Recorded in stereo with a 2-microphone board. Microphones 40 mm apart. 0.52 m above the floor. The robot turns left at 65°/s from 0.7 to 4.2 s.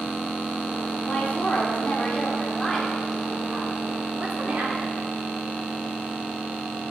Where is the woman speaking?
125° left, 1.3 m; by 4.9 s 80° right, 1.3 m.